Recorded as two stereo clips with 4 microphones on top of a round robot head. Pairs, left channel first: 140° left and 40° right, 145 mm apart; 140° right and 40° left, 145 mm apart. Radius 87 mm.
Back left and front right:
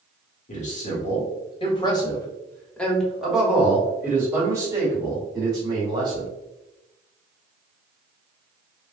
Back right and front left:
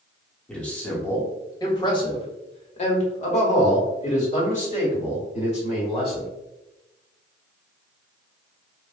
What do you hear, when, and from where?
0.5 s a man speaking: 140° left, 1.5 m; by 6.3 s 100° right, 3 m